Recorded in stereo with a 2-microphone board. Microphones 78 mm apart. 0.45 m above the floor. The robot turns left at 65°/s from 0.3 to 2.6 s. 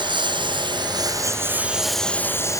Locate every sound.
0.0 s a lawn mower: 80° right; by 2.6 s 45° left (ahead or behind)